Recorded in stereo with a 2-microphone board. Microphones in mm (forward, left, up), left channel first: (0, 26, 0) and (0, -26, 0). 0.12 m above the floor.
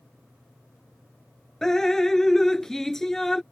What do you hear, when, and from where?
1.6 s dripping: 10° left (ahead or behind)